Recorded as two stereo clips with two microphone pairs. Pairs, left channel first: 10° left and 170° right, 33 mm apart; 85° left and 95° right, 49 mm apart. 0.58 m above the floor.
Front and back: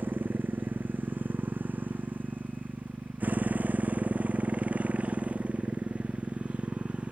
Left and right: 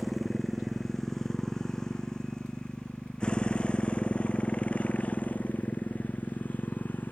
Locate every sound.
0.0 s a motorcycle: 175° left; by 7.1 s 140° left